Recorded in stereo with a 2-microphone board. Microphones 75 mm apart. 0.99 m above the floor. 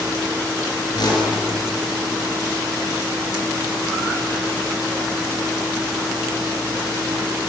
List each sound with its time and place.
0.9 s a whoosh: 65° left (ahead or behind), 5 m